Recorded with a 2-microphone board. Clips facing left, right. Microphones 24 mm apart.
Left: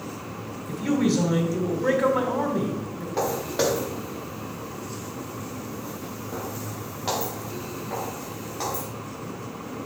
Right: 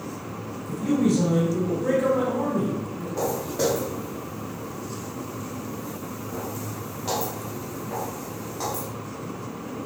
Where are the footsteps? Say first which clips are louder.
Left 1 dB; 65° left (ahead or behind), 3.5 m; by 8.9 s 15° left (ahead or behind), 4 m.